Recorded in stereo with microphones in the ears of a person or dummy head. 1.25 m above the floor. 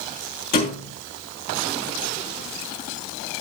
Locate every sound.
0.5 s a thud: 40° left (ahead or behind), 2.5 m